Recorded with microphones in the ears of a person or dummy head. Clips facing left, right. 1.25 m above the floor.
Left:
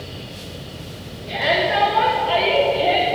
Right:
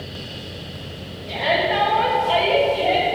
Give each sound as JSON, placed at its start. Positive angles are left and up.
{"t": 1.3, "sound": "a shout", "side_deg": 25, "distance_m": 3.5}